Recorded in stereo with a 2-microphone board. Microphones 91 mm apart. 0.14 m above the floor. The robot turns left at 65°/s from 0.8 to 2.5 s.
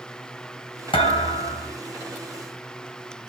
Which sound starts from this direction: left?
A thud, at 0.9 s.